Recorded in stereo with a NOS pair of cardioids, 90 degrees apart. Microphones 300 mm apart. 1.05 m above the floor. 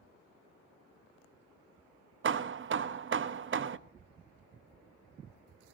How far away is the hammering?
About 1.1 m.